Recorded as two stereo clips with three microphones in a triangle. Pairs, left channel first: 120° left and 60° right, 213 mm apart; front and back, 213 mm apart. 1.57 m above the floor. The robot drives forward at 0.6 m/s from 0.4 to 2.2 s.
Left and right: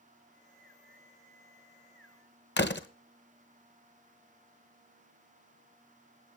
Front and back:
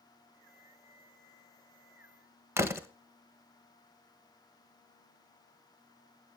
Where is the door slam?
105° left, 1.0 m.